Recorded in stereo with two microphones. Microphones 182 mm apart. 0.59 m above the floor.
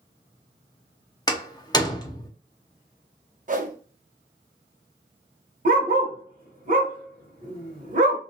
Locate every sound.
1.3 s a door slam: 20° left (ahead or behind), 0.7 m
3.5 s a whoosh: 45° right (ahead or behind), 0.6 m
5.7 s a dog barking: 50° right (ahead or behind), 0.9 m